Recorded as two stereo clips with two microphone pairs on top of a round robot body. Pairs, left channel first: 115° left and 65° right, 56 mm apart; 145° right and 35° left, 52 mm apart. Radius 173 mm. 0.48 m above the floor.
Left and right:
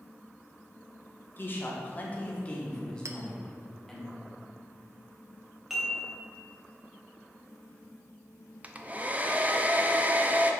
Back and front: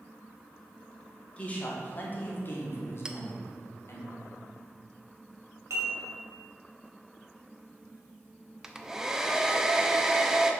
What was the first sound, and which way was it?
A man speaking, 150° left.